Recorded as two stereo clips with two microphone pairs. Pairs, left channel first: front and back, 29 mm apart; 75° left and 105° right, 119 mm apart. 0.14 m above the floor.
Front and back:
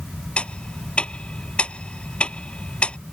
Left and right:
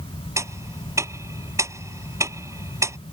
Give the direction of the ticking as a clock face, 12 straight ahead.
1 o'clock.